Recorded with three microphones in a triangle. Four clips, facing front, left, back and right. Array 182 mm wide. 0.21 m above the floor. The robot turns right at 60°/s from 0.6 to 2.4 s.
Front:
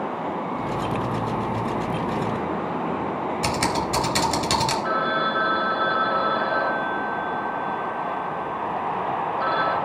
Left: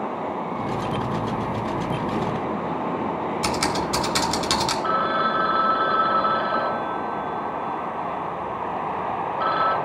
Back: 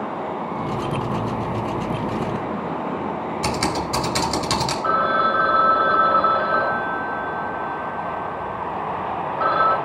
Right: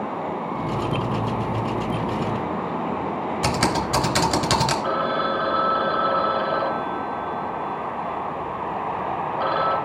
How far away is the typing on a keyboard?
About 1.6 m.